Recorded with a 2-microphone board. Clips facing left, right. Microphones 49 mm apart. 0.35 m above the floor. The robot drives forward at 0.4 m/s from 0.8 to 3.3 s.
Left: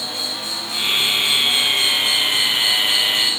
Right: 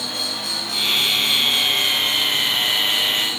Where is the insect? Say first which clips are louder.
Even; 55° right (ahead or behind), 1.5 m; by 3.4 s 35° right (ahead or behind), 2 m.